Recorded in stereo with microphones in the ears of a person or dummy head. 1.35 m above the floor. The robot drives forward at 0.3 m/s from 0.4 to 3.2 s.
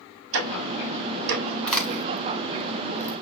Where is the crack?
10° left (ahead or behind), 1.3 m; by 3.2 s 20° left (ahead or behind), 0.8 m.